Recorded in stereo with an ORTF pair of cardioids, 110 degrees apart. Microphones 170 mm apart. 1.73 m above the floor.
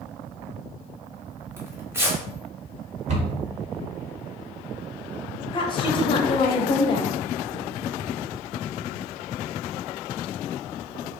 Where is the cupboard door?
40° right, 1.0 m.